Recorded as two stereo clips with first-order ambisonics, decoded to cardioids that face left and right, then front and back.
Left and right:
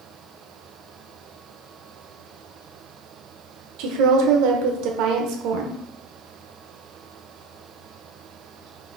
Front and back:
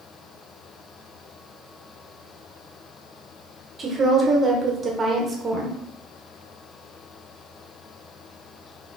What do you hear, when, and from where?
3.8 s a woman speaking: 110° right, 0.9 m